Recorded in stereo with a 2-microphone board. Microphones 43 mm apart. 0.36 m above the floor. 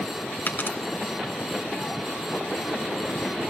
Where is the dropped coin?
55° left (ahead or behind), 2.0 m.